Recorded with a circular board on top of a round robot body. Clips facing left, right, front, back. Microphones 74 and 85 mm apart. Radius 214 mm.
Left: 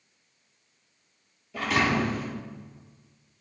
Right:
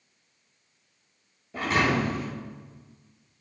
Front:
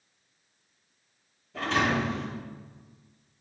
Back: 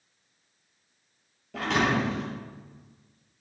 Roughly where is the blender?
No blender in this recording.